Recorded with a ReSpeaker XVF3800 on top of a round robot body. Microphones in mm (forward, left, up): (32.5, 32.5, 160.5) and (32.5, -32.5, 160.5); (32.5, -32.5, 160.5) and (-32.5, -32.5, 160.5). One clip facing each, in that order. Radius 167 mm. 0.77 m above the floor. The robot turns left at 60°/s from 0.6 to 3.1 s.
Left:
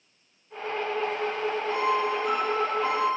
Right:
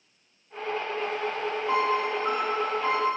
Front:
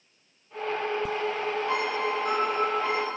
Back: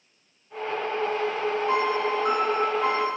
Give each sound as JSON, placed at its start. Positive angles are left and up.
{"t": 1.7, "sound": "a piano", "azimuth_deg": -115, "distance_m": 2.0}